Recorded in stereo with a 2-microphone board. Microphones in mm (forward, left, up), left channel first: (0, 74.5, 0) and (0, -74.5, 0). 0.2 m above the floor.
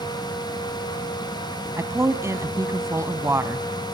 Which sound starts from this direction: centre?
A woman speaking, at 1.8 s.